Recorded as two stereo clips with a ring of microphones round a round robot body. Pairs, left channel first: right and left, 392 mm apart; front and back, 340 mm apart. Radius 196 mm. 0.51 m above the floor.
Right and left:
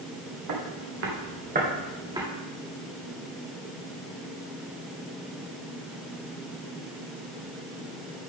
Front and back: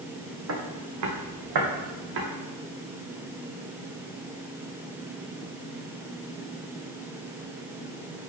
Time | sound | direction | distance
0.5 | footsteps | 135° left | 2.5 m